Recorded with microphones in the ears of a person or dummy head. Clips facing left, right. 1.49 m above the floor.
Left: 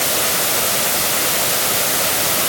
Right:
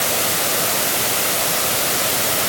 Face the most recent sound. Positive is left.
No sound to turn to.